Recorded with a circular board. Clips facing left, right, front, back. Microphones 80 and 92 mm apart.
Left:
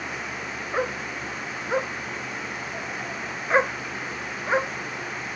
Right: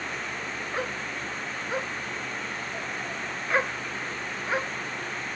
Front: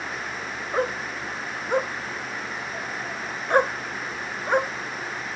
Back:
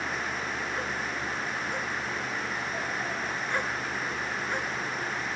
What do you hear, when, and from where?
0.7 s a dog barking: 30° left